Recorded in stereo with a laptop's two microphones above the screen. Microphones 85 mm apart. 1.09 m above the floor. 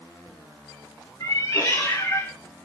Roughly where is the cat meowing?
Left.